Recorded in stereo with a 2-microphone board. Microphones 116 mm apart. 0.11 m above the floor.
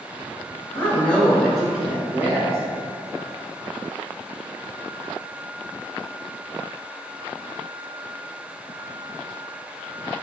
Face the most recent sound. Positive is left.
turn(degrees=-25)  # may be behind; listen again after turning